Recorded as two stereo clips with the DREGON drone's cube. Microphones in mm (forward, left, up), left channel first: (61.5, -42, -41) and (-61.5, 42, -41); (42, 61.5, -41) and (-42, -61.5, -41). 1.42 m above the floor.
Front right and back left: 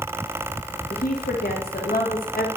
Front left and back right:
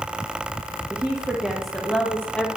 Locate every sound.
0.9 s a woman speaking: 50° right, 1.0 m; by 2.5 s 25° right, 1.7 m